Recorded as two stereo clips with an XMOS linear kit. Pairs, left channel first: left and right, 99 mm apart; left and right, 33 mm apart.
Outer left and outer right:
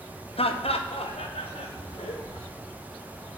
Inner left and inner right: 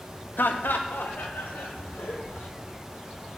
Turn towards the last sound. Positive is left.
turn(degrees=80)